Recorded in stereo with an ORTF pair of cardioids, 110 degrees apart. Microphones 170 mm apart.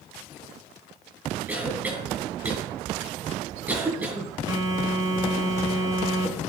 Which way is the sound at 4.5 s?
20° right.